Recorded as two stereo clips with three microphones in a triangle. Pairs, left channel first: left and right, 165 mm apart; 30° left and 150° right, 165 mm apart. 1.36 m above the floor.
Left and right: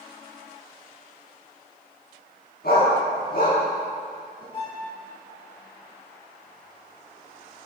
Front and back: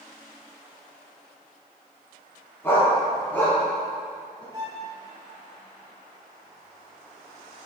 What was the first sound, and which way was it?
A dog barking, 105° left.